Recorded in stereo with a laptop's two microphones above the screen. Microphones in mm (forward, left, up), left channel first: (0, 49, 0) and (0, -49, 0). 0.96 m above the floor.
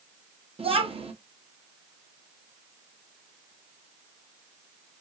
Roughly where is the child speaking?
Right.